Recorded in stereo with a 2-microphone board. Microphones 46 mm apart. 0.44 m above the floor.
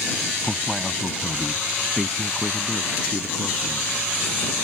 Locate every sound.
0.4 s a man speaking: 5° right (ahead or behind); by 3.9 s 10° left (ahead or behind)